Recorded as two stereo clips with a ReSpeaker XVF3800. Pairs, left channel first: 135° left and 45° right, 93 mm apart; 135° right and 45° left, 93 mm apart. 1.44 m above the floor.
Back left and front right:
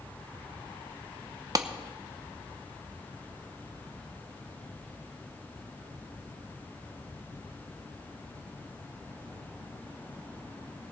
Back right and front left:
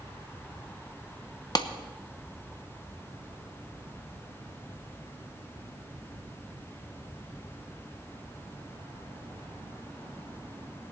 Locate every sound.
1.6 s a clap: 95° right, 0.8 m